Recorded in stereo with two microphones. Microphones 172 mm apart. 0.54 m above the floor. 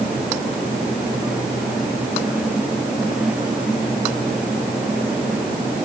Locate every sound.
Only background noise.